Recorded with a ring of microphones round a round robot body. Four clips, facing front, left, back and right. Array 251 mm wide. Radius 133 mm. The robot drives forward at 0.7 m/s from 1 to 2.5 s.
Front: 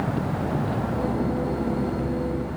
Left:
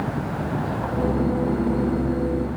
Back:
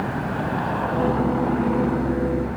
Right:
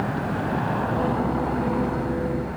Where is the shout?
I don't hear a shout.